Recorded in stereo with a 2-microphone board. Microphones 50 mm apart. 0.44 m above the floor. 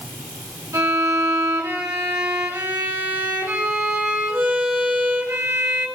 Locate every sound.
0.7 s a violin: 75° right (ahead or behind), 6.5 m